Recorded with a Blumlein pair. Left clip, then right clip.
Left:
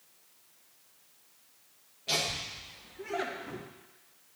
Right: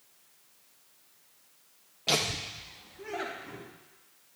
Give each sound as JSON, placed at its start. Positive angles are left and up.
{"t": 2.1, "sound": "laughter", "azimuth_deg": -30, "distance_m": 0.6}